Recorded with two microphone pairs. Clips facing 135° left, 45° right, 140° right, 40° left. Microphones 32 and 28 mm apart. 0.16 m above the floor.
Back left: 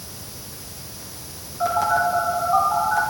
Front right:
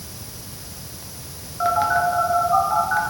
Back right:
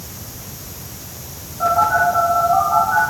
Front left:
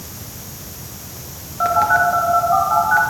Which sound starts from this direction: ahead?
A phone buzzing, at 1.6 s.